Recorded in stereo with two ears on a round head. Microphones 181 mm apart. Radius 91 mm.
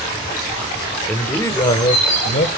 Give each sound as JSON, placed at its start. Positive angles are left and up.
{"t": 1.1, "sound": "a man speaking", "side_deg": 5, "distance_m": 1.3}